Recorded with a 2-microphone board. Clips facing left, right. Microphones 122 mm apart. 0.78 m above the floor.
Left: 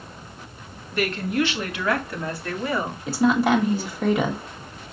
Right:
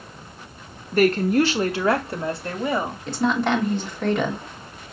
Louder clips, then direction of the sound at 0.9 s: Right 6 dB; 40° right (ahead or behind).